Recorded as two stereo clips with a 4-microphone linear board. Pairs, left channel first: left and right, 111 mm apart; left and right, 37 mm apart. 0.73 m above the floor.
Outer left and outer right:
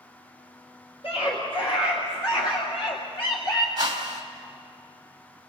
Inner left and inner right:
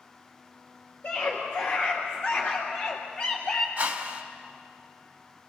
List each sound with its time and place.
1.0 s a scream: 60° left (ahead or behind), 3 m; by 3.7 s 40° left (ahead or behind), 1.5 m
3.8 s a whoosh: 40° right (ahead or behind), 1.9 m